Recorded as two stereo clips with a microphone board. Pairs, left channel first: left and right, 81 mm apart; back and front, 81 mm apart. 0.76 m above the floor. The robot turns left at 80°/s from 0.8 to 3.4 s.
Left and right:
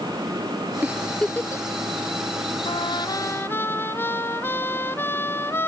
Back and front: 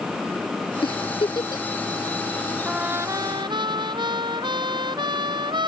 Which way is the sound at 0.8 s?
155° right.